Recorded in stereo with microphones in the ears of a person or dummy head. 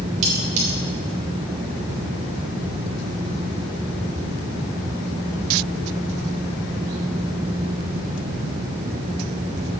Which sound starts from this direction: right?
Cutlery clinking, at 0.2 s.